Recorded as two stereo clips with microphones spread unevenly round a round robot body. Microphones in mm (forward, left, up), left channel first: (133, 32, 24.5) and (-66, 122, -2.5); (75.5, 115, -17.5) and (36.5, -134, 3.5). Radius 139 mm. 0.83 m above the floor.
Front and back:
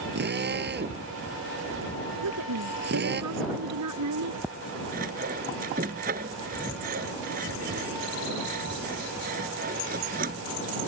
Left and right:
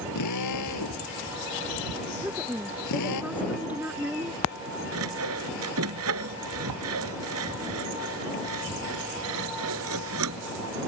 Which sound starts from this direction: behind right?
Sawing, at 4.9 s.